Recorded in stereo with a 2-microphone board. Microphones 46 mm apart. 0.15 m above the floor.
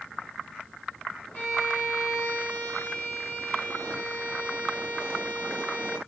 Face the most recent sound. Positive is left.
turn(degrees=45)  # may be behind; listen again after turning